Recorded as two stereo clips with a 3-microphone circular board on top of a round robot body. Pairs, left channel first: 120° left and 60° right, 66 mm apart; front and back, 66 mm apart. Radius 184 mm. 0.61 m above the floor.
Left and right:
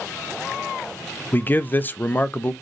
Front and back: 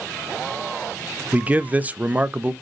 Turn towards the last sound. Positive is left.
turn(degrees=140)